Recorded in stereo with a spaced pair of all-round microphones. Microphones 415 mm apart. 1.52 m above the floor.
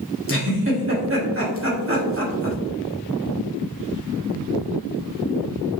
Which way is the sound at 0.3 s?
30° right (ahead or behind).